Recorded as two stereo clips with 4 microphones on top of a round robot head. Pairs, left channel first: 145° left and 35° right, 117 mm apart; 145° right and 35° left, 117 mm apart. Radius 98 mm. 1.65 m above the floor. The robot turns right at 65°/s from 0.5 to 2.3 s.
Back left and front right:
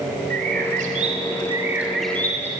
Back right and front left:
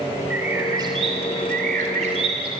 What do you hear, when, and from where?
0.3 s a bird: 40° right, 2.5 m; by 2.5 s 75° left, 2.5 m